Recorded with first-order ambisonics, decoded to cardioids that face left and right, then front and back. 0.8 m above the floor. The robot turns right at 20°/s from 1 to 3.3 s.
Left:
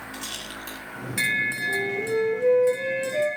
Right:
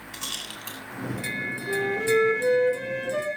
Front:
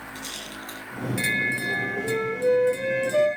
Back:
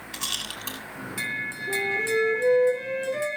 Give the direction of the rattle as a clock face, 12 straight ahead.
5 o'clock.